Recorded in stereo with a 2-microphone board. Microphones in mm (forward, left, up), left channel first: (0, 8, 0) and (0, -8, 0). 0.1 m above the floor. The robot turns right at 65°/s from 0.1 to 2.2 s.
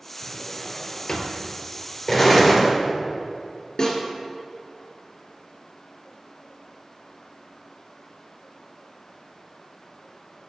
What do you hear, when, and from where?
0.2 s a drawer: straight ahead, 0.9 m; by 1.5 s 85° left, 0.9 m
2.1 s an explosion: 5° left (ahead or behind), 1.6 m; by 2.7 s centre (ahead or behind), 1.6 m
3.8 s a snare drum: 40° left (ahead or behind), 1.9 m